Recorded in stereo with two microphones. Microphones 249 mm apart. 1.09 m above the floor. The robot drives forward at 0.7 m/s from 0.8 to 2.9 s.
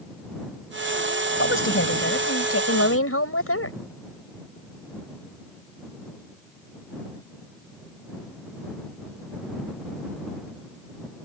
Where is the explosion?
No explosion in this recording.